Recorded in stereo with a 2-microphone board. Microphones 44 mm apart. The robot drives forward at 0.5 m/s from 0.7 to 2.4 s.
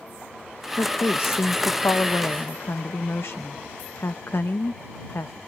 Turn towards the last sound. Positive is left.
turn(degrees=60)  # may be behind; listen again after turning